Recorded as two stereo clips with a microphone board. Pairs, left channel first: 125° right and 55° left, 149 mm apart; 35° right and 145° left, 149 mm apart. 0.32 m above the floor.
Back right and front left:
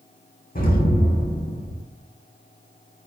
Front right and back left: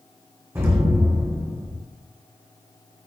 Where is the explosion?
140° right, 3 m.